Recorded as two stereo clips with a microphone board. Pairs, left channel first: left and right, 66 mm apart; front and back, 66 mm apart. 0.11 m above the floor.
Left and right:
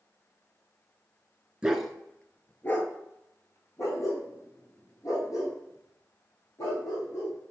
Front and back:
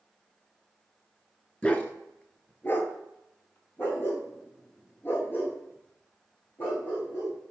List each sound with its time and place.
1.6 s a dog barking: 35° right, 0.5 m; by 7.4 s 60° left, 3 m